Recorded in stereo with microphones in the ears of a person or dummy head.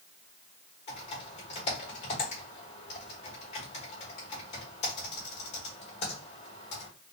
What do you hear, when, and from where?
0.9 s typing on a keyboard: 30° left (ahead or behind), 1.5 m